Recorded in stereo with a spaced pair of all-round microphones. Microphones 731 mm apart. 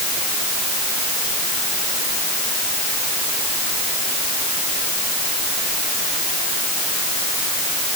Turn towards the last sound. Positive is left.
No sound to turn to.